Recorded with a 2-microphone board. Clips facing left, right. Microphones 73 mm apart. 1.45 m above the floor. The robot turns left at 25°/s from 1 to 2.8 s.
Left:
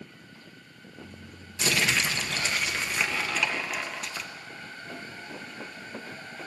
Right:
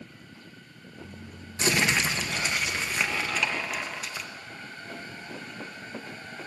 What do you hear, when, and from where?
1.6 s crumpling: 150° right, 1.1 m; by 4.3 s straight behind, 1.1 m